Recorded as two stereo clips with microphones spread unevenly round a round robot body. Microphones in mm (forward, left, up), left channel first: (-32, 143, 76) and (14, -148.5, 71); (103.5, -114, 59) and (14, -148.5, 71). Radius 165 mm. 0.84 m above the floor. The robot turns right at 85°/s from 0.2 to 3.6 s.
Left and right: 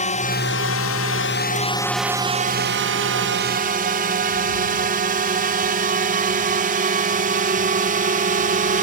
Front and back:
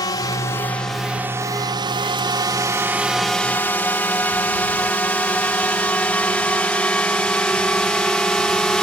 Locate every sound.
0.0 s a drone: 40° left; by 8.8 s 50° right